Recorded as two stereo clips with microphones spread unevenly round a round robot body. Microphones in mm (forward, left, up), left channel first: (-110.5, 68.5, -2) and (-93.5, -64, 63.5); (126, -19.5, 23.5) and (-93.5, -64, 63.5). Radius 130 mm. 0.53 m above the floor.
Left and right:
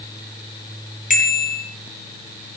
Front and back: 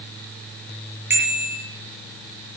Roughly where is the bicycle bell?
Left.